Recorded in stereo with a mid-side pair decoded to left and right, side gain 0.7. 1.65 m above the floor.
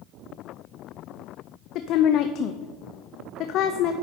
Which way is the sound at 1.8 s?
55° left.